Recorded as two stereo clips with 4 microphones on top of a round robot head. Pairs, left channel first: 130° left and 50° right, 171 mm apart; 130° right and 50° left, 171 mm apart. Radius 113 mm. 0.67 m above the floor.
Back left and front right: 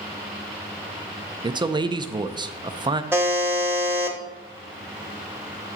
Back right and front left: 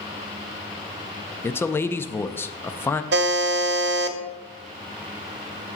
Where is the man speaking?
70° right, 0.5 m.